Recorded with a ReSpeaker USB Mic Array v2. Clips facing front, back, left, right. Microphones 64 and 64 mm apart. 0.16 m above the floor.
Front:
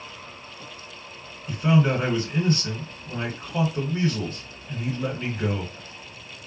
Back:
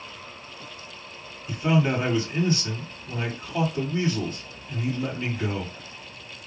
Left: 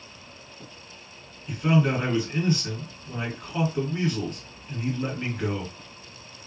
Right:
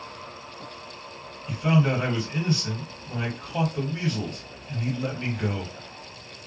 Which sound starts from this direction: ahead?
A man speaking, at 1.5 s.